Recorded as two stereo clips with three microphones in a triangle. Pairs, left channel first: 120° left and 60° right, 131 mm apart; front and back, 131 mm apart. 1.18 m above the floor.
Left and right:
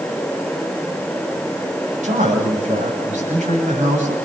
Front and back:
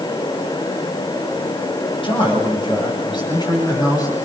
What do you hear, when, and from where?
2.0 s a man speaking: 45° right, 8.5 m; by 4.2 s 60° right, 9.5 m